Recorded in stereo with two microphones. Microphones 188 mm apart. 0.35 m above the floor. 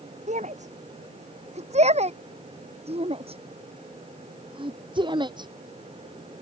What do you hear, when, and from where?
0.3 s a shout: 40° right (ahead or behind); by 5.5 s 25° right (ahead or behind)